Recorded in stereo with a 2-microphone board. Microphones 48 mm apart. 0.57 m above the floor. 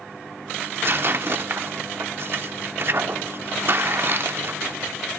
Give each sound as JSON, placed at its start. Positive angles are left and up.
{"t": 0.6, "sound": "tearing paper", "side_deg": -50, "distance_m": 0.5}